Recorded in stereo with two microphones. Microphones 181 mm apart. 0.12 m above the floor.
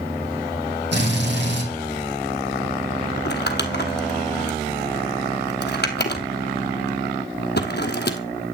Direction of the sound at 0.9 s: 75° right (ahead or behind).